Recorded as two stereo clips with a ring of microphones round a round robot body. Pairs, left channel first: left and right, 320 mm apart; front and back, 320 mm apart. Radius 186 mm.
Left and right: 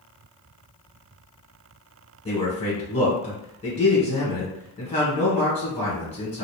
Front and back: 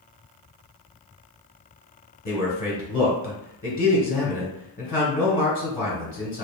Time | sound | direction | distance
2.2 | a man speaking | 35° left | 1.5 m